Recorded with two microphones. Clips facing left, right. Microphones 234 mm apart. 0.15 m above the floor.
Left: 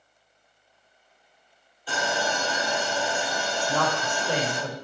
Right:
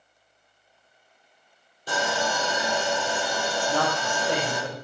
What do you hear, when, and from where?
1.9 s sawing: 40° right (ahead or behind), 3.5 m
3.6 s a woman speaking: 10° right (ahead or behind), 3.5 m